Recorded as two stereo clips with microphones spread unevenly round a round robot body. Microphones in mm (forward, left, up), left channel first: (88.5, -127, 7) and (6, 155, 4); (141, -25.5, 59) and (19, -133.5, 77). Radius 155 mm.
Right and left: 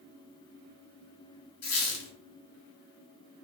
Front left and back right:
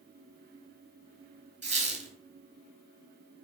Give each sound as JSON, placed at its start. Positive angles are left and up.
{"t": 1.6, "sound": "a squeak", "azimuth_deg": -95, "distance_m": 1.1}